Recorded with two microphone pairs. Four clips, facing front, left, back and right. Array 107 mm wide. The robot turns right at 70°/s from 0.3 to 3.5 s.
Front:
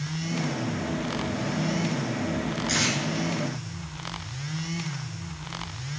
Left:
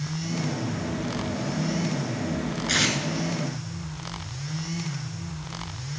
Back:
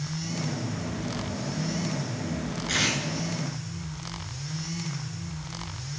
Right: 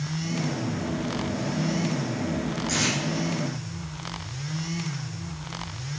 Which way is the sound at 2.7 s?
85° left.